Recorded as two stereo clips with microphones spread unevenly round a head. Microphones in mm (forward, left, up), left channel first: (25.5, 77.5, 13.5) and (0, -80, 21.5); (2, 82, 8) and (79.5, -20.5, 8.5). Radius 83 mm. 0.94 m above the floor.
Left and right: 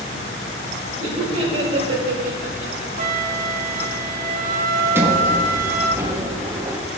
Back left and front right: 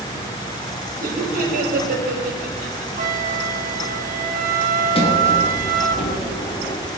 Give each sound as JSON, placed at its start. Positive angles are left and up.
{"t": 1.0, "sound": "laughter", "azimuth_deg": -55, "distance_m": 4.5}
{"t": 3.0, "sound": "a flute", "azimuth_deg": -70, "distance_m": 1.0}
{"t": 5.0, "sound": "a sliding door", "azimuth_deg": -175, "distance_m": 1.3}